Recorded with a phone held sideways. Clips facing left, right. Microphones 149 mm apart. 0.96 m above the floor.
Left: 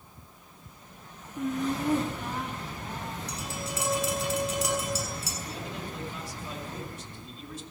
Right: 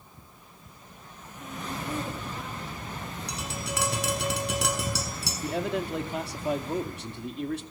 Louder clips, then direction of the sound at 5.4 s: Right 9 dB; 70° right (ahead or behind).